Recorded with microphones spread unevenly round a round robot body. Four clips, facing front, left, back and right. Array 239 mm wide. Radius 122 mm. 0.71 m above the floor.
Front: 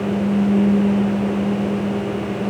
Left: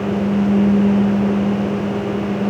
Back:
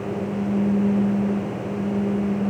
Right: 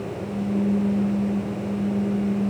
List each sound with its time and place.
Only background noise.